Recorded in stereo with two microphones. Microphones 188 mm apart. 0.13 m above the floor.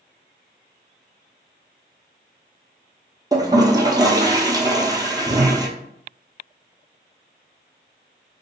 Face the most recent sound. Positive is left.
turn(degrees=-20)  # may be behind; listen again after turning